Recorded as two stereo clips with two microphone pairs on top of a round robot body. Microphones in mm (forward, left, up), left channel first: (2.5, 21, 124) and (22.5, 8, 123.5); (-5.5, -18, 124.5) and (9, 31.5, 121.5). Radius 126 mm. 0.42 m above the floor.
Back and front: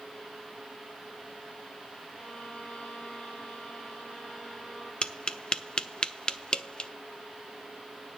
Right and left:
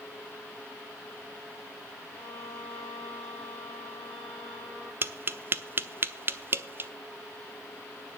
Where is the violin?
Straight behind, 8 m.